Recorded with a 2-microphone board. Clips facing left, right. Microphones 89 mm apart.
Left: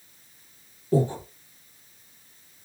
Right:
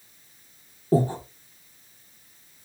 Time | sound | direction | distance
0.9 | breathing | 40° right (ahead or behind) | 0.7 m